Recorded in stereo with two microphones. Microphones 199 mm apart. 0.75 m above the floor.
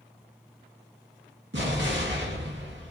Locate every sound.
1.5 s an explosion: 75° right (ahead or behind), 1.5 m